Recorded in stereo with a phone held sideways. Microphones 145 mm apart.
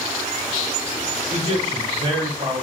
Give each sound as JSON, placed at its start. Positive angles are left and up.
{"t": 1.3, "sound": "a man speaking", "side_deg": -40, "distance_m": 1.9}